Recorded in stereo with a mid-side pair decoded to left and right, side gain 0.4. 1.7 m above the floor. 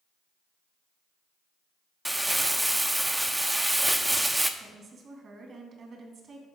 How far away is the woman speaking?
About 2.5 m.